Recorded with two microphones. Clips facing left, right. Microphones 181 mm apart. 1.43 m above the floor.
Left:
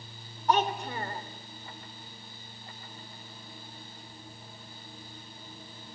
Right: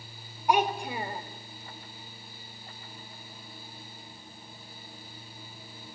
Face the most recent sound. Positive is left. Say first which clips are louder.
# right 1 dB
turn(degrees=-10)  # may be behind; listen again after turning